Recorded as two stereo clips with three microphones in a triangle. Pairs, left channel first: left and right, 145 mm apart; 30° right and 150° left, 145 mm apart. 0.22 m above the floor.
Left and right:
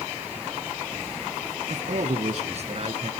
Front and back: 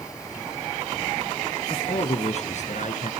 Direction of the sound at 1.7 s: 75° right.